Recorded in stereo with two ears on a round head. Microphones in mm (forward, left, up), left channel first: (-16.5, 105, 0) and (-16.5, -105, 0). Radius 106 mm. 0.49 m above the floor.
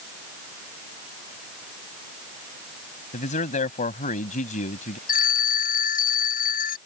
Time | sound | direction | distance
3.1 | a man speaking | 35° left (ahead or behind) | ?
5.1 | a phone ringing | 40° left (ahead or behind) | ?